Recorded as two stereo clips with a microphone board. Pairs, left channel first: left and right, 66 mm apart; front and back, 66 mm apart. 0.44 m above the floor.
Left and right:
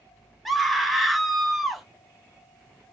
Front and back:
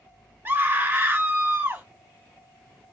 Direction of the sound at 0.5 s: Straight behind.